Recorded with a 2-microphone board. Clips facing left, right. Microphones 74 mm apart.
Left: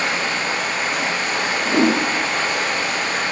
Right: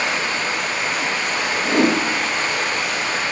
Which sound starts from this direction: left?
Running water, at 0.0 s.